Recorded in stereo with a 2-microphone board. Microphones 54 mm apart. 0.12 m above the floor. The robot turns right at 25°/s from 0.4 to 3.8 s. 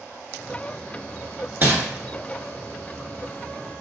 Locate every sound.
1.6 s crumpling: 35° right (ahead or behind), 1.3 m